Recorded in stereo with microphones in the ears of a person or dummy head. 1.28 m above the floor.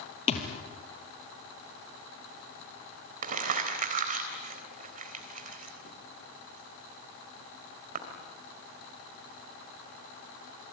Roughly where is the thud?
Left.